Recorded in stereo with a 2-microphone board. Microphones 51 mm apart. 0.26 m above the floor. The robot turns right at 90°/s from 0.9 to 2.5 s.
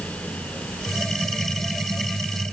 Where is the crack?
No crack in this recording.